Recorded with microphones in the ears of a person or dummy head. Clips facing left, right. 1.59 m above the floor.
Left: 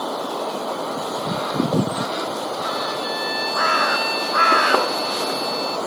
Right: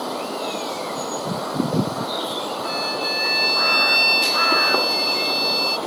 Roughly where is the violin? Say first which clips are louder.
Left 1 dB; right.